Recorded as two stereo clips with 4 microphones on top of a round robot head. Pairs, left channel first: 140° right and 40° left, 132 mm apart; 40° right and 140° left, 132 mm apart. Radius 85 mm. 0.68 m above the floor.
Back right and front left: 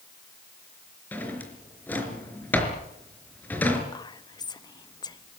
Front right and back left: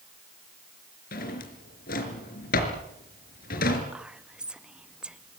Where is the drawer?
60° right, 4 m.